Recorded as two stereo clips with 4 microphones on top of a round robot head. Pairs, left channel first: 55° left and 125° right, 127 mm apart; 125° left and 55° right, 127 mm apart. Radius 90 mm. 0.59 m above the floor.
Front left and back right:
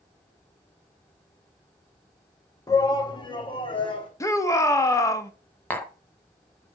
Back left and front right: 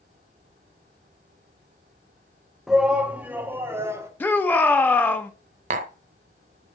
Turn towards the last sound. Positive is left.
turn(degrees=-25)